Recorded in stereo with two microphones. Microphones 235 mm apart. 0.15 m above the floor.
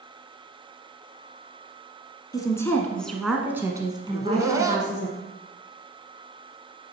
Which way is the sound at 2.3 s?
15° left (ahead or behind).